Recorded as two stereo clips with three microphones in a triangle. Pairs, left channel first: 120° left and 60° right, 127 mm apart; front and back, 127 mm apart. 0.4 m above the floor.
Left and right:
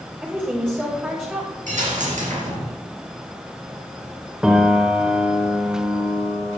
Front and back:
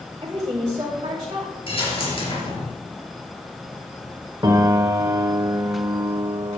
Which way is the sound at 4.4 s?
140° right.